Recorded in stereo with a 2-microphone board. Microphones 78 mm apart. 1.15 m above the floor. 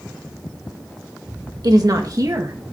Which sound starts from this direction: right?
A woman speaking, at 1.6 s.